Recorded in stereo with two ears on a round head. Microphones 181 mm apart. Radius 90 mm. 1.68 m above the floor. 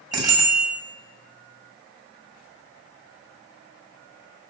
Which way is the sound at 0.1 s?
20° right (ahead or behind).